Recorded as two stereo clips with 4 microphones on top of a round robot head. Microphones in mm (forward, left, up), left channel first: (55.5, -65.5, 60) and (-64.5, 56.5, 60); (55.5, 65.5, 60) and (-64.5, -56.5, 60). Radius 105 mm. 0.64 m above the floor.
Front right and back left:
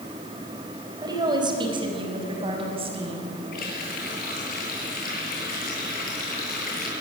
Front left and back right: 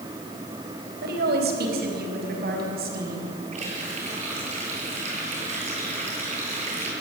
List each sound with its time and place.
1.0 s a woman speaking: 160° right, 4 m; by 3.3 s 170° right, 6.5 m
3.5 s a running tap: 80° right, 8 m